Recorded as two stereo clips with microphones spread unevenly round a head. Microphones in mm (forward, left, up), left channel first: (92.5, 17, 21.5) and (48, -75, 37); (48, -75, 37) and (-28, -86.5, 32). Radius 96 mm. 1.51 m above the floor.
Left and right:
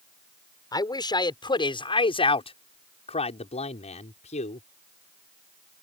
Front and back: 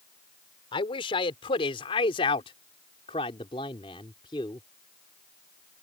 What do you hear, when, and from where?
0.7 s a man speaking: 15° left; by 4.6 s 70° left